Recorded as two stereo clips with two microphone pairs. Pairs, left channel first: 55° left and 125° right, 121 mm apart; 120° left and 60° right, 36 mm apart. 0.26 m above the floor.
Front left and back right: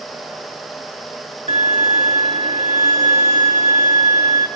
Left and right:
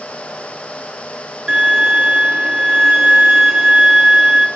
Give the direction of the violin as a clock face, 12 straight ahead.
4 o'clock.